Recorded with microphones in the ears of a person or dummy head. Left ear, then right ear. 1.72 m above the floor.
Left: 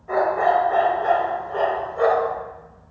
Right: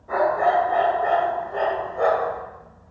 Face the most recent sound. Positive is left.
turn(degrees=65)  # may be behind; listen again after turning